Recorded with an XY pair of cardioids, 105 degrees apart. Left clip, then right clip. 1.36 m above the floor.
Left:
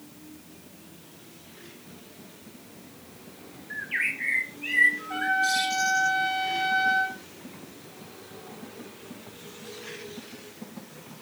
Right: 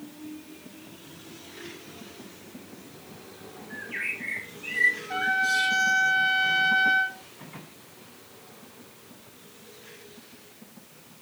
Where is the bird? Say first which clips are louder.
Left 4 dB; 45° left, 1.2 m.